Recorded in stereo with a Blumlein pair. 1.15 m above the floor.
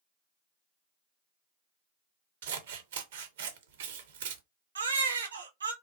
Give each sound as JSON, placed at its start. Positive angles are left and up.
{"t": 2.4, "sound": "scissors", "azimuth_deg": -55, "distance_m": 0.6}
{"t": 4.8, "sound": "a baby crying", "azimuth_deg": -70, "distance_m": 0.5}